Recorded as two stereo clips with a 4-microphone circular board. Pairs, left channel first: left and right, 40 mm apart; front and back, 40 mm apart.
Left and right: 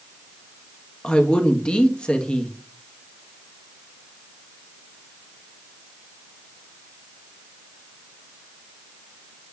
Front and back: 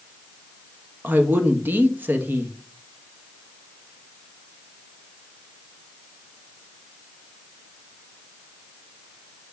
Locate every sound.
1.0 s a woman speaking: 150° left, 0.9 m